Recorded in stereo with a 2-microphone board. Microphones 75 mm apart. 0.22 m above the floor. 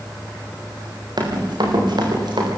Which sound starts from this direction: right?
Running footsteps, at 1.2 s.